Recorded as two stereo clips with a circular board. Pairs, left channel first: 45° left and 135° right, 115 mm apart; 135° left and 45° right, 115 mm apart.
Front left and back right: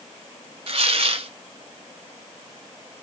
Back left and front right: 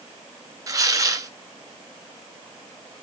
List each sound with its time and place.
0.7 s tearing paper: 105° right, 0.6 m